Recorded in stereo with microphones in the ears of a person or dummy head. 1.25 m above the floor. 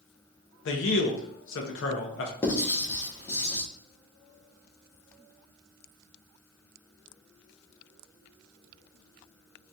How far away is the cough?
No cough in this recording.